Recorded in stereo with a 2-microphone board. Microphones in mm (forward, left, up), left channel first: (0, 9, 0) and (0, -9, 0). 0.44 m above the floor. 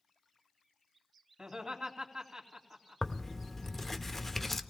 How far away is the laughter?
About 3 m.